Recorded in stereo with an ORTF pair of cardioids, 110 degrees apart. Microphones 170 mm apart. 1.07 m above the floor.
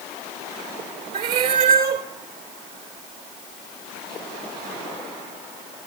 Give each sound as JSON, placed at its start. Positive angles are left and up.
{"t": 1.1, "sound": "a cat meowing", "azimuth_deg": -65, "distance_m": 1.8}